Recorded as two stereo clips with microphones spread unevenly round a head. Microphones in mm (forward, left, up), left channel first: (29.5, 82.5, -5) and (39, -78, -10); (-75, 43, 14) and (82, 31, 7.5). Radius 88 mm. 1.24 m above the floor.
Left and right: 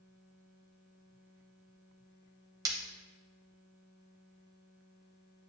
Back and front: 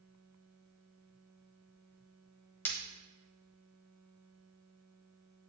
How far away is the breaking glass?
About 1.1 m.